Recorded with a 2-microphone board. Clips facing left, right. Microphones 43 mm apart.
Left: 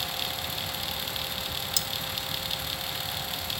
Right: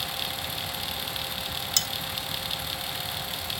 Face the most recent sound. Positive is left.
turn(degrees=-60)  # may be behind; listen again after turning